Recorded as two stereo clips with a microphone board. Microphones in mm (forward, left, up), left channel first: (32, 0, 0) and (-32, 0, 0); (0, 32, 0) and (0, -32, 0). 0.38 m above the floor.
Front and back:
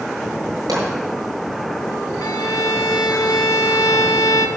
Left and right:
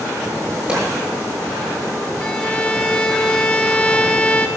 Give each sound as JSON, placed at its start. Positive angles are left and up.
{"t": 0.7, "sound": "a pop", "azimuth_deg": -165, "distance_m": 7.5}
{"t": 2.2, "sound": "a violin", "azimuth_deg": 15, "distance_m": 0.8}